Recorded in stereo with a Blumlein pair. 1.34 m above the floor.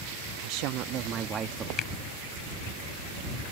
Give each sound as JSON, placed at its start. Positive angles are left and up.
{"t": 0.4, "sound": "a woman speaking", "azimuth_deg": -45}
{"t": 1.8, "sound": "a finger snap", "azimuth_deg": 30}